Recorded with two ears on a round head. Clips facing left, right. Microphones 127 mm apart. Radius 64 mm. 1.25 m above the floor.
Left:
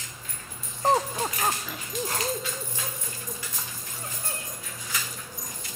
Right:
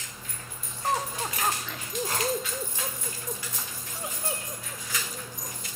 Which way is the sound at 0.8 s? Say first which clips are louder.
Left 5 dB; 30° left (ahead or behind).